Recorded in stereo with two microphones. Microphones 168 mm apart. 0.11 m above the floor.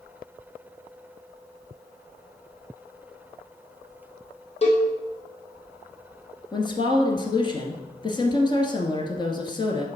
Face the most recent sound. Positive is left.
turn(degrees=25)  # may be behind; listen again after turning